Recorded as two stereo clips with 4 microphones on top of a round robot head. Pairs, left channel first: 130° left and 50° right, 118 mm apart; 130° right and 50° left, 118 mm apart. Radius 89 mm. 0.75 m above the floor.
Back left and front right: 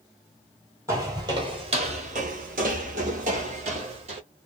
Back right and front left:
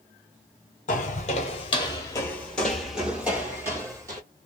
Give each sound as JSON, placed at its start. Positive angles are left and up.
{"t": 0.9, "sound": "footsteps", "azimuth_deg": -115, "distance_m": 1.1}